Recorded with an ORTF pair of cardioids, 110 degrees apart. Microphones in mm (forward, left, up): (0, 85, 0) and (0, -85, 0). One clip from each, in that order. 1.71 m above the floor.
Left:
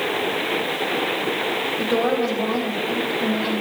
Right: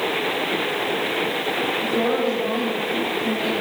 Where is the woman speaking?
55° left, 5 m.